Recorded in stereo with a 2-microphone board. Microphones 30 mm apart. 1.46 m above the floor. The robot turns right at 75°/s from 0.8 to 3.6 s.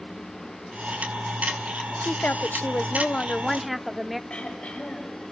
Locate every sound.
2.0 s a woman speaking: 60° left, 0.6 m; by 4.2 s straight behind, 0.6 m
4.3 s throat clearing: 55° left (ahead or behind), 6 m